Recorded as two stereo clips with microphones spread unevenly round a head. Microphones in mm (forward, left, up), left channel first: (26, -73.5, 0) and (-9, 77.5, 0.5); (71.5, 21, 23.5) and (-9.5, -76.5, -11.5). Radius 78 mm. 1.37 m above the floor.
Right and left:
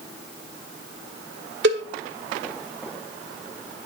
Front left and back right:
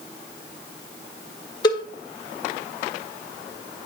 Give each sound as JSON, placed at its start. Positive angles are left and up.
{"t": 1.6, "sound": "a cowbell", "azimuth_deg": 120, "distance_m": 1.6}